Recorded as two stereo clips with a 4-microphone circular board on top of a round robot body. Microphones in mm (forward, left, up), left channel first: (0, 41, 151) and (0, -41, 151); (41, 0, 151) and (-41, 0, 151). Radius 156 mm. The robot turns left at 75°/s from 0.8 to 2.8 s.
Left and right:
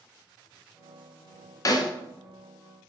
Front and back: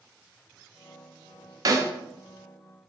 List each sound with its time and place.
1.6 s a snare drum: 135° left, 0.6 m; by 1.9 s 115° left, 0.6 m